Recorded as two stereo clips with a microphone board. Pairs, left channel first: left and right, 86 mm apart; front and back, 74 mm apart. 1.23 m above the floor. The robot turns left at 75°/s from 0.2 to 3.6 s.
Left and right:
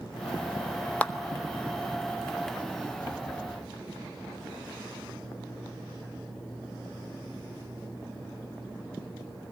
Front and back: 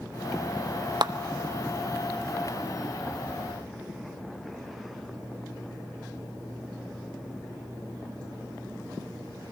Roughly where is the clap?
Behind.